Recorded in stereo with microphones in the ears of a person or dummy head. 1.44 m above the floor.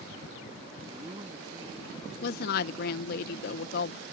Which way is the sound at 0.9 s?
25° right (ahead or behind).